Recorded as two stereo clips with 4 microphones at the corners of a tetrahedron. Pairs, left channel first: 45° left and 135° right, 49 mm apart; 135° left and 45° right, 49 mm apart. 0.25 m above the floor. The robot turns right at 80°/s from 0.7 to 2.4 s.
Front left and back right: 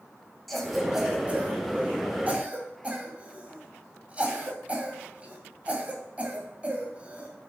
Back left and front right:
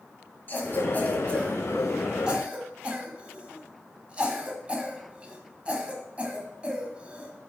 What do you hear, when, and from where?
0.5 s a cough: 130° left, 1.5 m; by 7.3 s 90° right, 1.5 m